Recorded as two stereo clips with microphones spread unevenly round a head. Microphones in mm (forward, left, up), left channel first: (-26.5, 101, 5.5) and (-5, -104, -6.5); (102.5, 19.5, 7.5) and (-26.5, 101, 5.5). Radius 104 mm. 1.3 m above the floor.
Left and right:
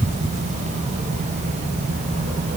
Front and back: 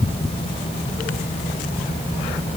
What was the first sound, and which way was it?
Only background noise.